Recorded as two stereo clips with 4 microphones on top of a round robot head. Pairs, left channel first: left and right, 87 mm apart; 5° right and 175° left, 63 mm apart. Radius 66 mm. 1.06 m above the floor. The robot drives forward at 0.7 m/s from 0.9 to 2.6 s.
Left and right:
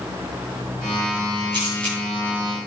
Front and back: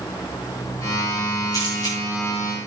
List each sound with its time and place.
1.5 s a camera shutter: 45° right, 8.5 m